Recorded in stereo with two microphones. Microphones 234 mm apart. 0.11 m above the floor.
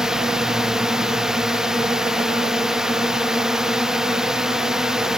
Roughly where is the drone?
Centre.